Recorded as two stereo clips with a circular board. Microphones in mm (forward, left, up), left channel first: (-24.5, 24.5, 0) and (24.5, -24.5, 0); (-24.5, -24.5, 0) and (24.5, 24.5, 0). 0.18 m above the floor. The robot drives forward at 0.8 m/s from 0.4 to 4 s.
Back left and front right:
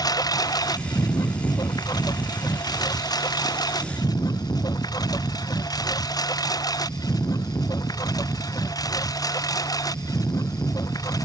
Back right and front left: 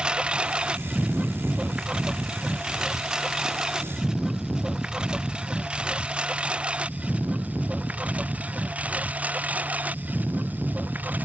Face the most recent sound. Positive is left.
turn(degrees=110)